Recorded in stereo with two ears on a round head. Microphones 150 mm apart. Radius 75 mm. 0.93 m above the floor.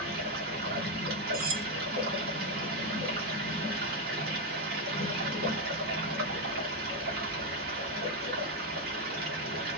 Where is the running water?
60° right (ahead or behind), 1.4 m.